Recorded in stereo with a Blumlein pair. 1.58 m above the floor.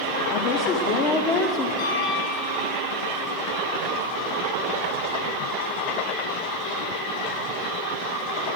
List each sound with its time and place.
0.3 s a woman speaking: 35° left, 1.0 m
1.8 s a piano: 65° left, 3.5 m